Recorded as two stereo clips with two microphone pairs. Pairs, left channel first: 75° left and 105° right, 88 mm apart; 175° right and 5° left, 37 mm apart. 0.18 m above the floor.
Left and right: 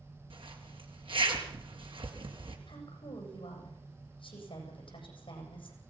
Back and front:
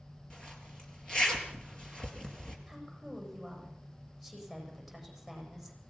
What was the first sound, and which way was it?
A zipper, 110° right.